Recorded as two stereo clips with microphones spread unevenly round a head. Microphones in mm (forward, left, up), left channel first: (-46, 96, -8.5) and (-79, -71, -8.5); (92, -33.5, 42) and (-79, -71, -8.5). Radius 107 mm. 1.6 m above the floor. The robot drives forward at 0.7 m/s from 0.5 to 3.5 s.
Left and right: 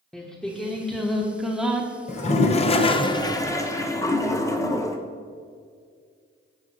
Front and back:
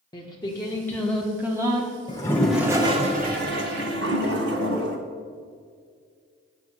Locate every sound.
0.1 s singing: 5° right, 1.4 m; by 1.9 s 155° right, 1.1 m
2.1 s a toilet flushing: 45° left, 0.8 m; by 5.0 s 150° left, 0.9 m